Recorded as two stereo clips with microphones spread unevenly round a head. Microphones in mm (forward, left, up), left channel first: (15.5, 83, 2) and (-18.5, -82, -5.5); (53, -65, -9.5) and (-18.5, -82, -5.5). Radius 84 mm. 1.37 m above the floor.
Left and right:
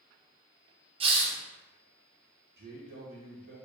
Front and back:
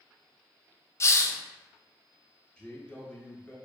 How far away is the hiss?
About 0.6 m.